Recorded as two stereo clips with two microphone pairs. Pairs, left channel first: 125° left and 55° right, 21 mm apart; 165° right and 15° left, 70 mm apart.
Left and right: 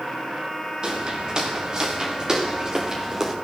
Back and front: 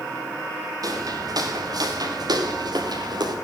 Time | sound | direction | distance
0.8 | footsteps | 15° right | 6.5 m